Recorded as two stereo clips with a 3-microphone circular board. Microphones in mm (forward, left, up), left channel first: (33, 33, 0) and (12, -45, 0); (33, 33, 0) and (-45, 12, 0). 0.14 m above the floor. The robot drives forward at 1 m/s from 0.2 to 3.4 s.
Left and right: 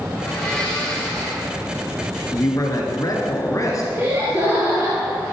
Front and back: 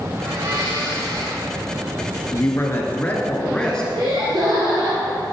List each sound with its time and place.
0.2 s a blender: 155° left, 4.5 m; by 1.5 s 160° left, 5.5 m
2.3 s a man speaking: 50° left, 2 m; by 3.8 s 90° left, 1.8 m
3.9 s laughter: 165° right, 2.5 m